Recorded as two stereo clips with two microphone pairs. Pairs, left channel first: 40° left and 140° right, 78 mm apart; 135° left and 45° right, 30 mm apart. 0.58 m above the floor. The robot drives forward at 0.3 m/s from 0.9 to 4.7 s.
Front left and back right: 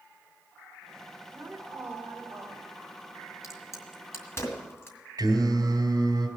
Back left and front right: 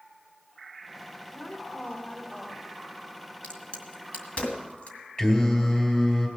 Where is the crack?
85° left, 2 m; by 5.0 s 95° left, 2 m.